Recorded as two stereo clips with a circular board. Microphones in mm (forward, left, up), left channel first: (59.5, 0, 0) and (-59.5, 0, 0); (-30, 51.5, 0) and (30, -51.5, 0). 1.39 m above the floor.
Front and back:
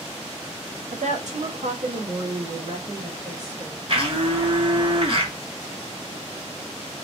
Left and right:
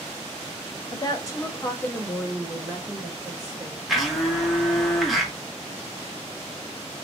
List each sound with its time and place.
0.9 s a woman speaking: 170° left, 1.0 m; by 3.8 s 120° right, 1.7 m
3.9 s a blender: 150° right, 1.0 m